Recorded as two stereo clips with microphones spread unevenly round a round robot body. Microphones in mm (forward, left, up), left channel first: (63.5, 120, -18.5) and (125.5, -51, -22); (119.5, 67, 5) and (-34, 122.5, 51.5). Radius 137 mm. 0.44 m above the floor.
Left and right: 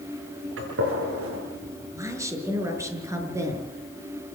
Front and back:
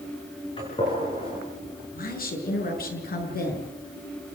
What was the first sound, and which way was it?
A gunshot, 90° right.